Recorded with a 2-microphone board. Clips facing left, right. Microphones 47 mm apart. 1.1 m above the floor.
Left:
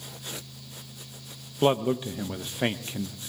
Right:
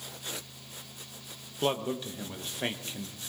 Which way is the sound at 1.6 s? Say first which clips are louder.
Left 7 dB; 20° left (ahead or behind).